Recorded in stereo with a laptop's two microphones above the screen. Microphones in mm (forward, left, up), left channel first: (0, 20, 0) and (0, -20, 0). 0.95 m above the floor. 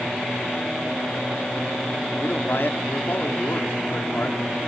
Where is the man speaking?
70° left (ahead or behind), 2.5 m.